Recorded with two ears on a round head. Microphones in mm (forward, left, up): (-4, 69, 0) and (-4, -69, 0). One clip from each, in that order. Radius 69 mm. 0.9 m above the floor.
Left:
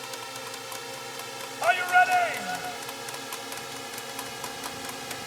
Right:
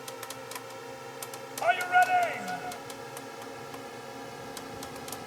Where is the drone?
65° left (ahead or behind); by 5.3 s 60° left (ahead or behind).